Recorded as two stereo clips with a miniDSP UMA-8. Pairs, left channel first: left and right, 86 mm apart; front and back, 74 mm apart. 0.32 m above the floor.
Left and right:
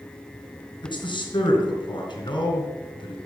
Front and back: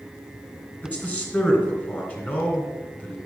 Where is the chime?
I don't hear a chime.